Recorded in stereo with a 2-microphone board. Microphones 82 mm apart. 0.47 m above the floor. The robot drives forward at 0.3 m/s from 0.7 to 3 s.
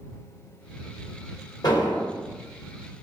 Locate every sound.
1.6 s an explosion: 50° left (ahead or behind), 0.7 m